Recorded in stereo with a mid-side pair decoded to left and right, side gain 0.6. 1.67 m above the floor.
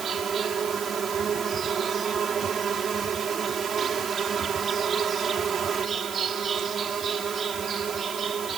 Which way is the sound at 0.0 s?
40° right.